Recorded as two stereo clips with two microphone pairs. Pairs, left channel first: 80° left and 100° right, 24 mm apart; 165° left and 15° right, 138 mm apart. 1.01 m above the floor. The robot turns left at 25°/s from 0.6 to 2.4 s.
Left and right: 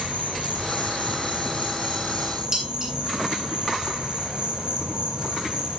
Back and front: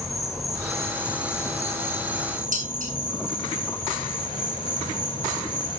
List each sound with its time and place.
0.0 s an insect: 105° right, 4.5 m; by 5.8 s 150° right, 4.5 m
2.5 s dishes clattering: 30° right, 7 m